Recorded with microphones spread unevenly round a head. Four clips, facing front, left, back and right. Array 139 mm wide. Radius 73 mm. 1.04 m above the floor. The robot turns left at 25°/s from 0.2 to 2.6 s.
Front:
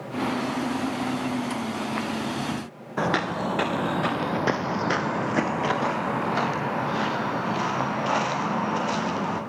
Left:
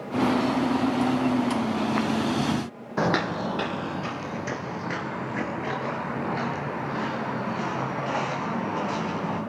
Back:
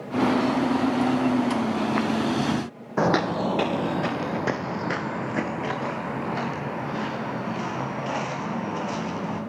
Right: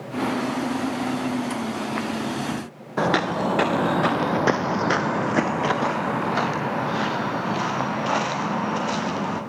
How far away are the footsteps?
About 1.5 m.